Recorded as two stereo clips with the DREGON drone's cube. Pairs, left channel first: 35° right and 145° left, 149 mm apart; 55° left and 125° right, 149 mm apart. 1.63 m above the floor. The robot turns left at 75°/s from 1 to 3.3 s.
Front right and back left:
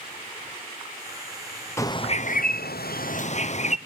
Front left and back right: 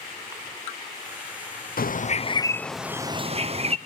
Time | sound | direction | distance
1.8 | a bird | 40° left | 0.8 m